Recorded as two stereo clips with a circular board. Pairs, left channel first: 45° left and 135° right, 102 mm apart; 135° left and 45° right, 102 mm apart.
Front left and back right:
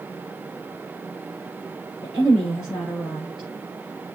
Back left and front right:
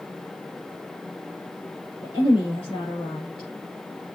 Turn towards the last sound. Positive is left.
turn(degrees=135)